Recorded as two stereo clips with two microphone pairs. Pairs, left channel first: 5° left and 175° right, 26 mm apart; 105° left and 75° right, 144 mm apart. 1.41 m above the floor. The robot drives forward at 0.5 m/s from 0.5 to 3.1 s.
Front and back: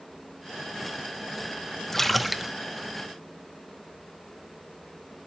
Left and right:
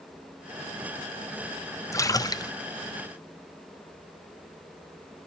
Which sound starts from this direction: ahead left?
A splash, at 1.9 s.